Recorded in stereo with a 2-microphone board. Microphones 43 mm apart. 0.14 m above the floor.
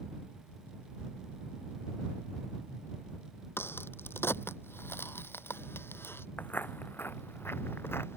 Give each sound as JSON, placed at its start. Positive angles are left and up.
{"t": 3.6, "sound": "a crack", "side_deg": 65}
{"t": 6.4, "sound": "footsteps", "side_deg": 45}